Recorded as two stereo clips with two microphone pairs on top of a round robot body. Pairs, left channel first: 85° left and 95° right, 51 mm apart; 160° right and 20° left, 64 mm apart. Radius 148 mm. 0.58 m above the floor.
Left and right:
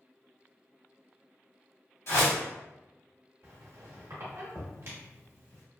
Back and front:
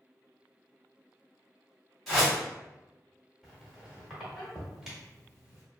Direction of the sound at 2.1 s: 110° left.